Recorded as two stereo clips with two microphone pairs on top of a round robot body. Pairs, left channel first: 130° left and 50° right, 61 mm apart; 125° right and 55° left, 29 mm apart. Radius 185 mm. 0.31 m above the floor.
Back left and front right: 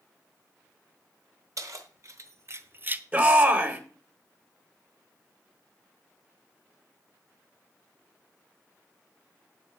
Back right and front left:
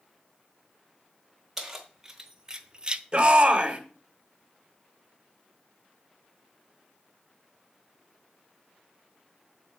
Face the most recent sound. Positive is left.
turn(degrees=5)